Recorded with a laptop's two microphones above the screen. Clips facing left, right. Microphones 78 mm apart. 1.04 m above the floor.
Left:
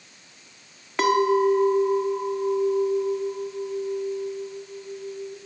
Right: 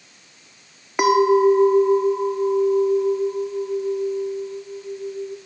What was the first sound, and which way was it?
A clink, 15° right (ahead or behind).